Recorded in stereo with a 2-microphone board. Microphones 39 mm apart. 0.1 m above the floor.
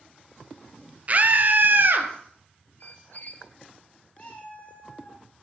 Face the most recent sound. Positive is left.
turn(degrees=35)  # may be behind; listen again after turning